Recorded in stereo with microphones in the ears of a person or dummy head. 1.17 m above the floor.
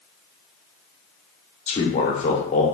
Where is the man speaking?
25° left (ahead or behind), 0.8 m.